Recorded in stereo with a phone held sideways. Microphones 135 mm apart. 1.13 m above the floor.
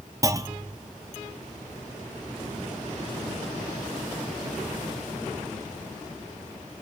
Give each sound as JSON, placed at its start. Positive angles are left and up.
{"t": 0.2, "sound": "a clunk", "side_deg": -25, "distance_m": 0.6}